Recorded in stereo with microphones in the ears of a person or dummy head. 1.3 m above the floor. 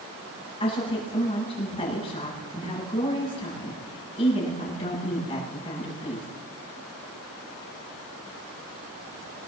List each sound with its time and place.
0.6 s a woman speaking: 30° left (ahead or behind), 9 m